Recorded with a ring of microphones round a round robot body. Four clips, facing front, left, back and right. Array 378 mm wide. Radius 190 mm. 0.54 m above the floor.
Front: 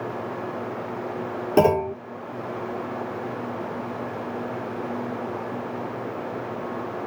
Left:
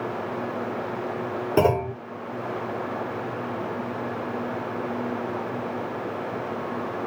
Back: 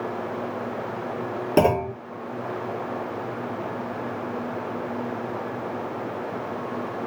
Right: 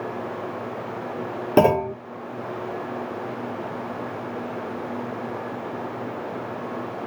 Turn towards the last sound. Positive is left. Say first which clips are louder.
# right 4 dB, front 1 dB
turn(degrees=-100)